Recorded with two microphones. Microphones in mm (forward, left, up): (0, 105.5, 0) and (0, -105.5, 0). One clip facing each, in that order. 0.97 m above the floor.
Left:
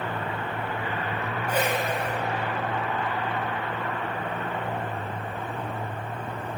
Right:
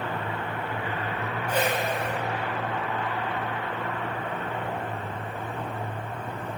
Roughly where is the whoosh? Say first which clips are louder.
Even; centre.